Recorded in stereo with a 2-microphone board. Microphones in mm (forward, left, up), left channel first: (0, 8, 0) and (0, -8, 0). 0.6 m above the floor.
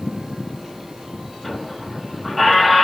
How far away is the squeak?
About 2.5 m.